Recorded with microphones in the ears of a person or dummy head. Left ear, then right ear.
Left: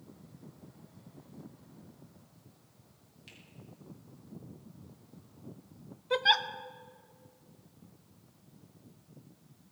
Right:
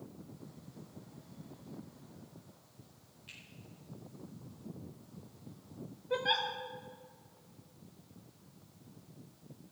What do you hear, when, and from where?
3.3 s a finger snap: 50° left (ahead or behind), 6 m
6.1 s a giggle: 45° left (ahead or behind), 0.7 m